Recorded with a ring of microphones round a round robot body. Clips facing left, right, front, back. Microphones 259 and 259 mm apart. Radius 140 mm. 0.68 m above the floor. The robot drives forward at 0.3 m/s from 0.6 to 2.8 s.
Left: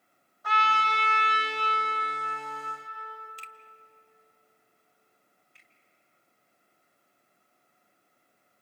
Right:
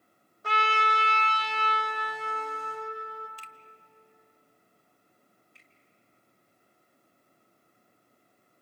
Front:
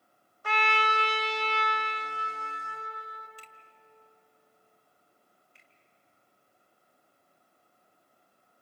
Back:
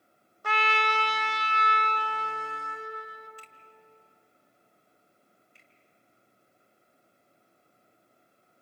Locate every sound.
0.4 s a trumpet: 150° right, 1.4 m; by 3.3 s 160° right, 1.9 m
3.4 s a finger snap: 55° left, 0.9 m
5.5 s a finger snap: 125° left, 2.5 m